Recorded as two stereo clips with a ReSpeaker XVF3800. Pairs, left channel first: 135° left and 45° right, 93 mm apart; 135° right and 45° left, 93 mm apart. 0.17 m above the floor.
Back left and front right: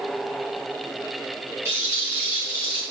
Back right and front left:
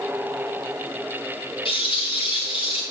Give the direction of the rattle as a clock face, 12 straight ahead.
4 o'clock.